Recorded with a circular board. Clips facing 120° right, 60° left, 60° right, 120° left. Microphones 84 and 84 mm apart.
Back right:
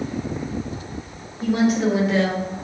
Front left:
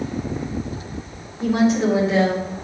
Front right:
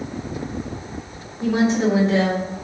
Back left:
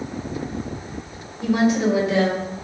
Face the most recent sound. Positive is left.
turn(degrees=-5)